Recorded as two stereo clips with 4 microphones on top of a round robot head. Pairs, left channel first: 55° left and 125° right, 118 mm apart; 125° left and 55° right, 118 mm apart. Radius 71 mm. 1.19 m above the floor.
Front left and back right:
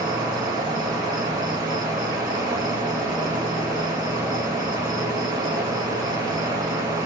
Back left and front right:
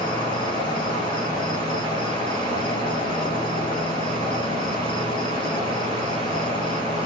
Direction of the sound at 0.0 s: Straight behind.